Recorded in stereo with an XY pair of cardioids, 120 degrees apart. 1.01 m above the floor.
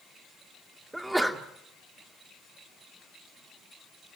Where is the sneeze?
10° right, 2.5 m.